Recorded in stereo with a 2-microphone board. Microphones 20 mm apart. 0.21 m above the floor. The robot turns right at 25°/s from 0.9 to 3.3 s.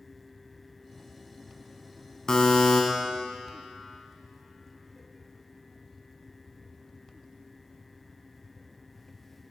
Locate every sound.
2.3 s a buzzer: 30° left (ahead or behind), 1.1 m; by 2.8 s 35° left (ahead or behind), 1.1 m